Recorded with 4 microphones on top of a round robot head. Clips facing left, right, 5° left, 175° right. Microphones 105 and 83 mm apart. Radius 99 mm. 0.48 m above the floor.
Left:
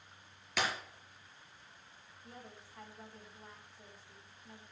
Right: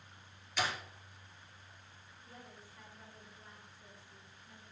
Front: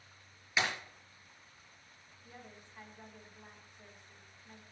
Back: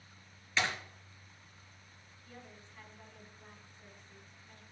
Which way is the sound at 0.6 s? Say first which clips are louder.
Left 1 dB, even; 80° left.